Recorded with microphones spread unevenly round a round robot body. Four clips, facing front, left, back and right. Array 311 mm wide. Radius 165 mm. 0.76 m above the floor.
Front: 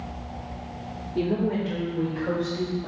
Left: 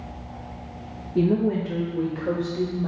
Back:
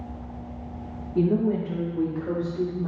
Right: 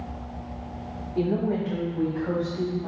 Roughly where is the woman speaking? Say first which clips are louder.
Left 4 dB, back 2 dB; behind left.